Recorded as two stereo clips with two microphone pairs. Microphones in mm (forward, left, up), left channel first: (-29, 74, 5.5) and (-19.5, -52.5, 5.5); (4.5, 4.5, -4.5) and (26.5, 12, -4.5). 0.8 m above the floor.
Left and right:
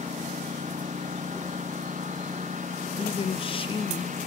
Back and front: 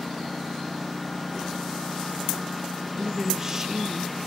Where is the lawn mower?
75° right.